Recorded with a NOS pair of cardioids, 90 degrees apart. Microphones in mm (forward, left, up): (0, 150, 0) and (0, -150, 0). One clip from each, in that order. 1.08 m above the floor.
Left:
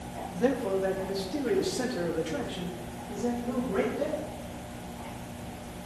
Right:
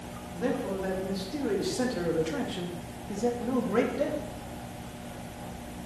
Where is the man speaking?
25° left, 2.5 m; by 4.2 s 55° right, 2.5 m.